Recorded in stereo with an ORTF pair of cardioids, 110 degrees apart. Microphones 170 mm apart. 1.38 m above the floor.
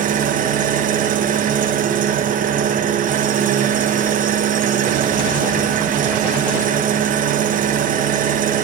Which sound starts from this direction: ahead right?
An engine running, at 0.0 s.